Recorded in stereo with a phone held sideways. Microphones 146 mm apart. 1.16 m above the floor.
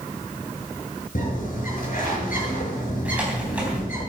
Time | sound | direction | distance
1.1 | a bird | 70° left (ahead or behind) | 7.5 m
3.0 | typing on a keyboard | 10° right (ahead or behind) | 4 m